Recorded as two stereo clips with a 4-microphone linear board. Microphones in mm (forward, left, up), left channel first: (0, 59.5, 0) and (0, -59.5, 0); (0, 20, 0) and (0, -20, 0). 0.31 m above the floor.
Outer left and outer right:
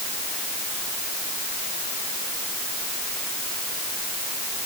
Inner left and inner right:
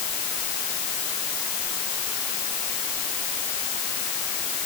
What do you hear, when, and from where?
Only background noise.